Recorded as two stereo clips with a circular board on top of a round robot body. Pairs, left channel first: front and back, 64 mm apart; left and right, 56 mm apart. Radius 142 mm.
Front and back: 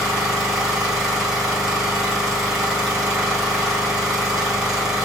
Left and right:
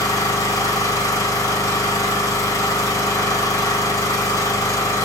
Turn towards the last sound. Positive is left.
turn(degrees=100)